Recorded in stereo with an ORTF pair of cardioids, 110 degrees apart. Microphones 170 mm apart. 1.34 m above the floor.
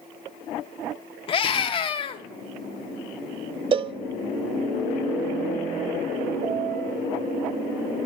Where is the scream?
35° left, 0.6 m.